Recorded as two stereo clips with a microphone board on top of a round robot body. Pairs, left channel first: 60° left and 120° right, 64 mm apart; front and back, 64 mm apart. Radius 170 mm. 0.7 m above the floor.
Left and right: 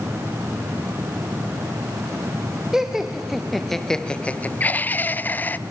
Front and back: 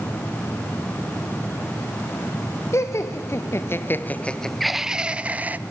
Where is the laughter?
35° right, 1.3 m; by 5.6 s 120° left, 1.1 m.